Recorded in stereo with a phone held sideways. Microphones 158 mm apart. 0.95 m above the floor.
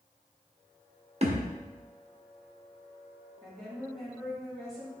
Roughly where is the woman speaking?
Centre.